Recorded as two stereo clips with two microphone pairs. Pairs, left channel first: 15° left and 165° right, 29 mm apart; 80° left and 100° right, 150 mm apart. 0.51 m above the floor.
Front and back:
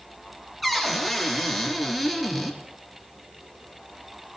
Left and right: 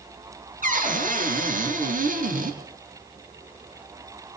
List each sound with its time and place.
0.6 s a cupboard door: 75° right, 3 m